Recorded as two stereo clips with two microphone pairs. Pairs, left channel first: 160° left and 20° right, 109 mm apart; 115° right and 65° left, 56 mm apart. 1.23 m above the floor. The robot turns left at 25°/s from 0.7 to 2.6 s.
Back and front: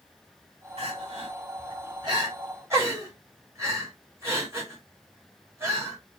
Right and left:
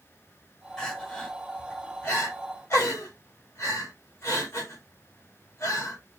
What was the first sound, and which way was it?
Crying, 35° right.